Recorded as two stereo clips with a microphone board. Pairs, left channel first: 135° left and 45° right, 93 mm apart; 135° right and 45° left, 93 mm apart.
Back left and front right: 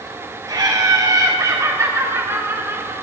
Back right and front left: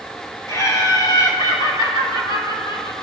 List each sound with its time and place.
0.5 s laughter: 80° right, 3 m; by 2.9 s 110° right, 3.5 m